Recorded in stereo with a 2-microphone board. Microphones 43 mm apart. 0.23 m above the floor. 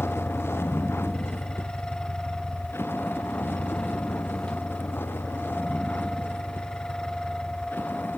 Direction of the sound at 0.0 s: 70° left (ahead or behind).